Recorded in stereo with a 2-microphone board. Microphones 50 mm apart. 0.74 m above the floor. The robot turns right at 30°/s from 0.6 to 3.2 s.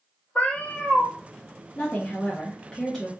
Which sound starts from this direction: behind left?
A woman speaking, at 1.8 s.